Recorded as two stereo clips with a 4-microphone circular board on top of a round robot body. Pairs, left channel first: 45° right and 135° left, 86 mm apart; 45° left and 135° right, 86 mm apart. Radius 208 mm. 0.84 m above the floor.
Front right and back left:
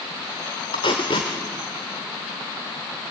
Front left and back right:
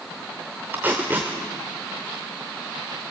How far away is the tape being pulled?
About 0.6 m.